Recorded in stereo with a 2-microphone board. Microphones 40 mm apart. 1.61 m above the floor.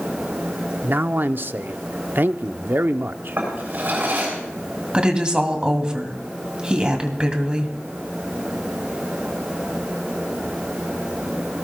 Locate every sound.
0.8 s a man speaking: 55° right (ahead or behind), 0.6 m
3.4 s a drawer: 50° right (ahead or behind), 7.5 m
4.9 s a woman speaking: 25° right (ahead or behind), 2.5 m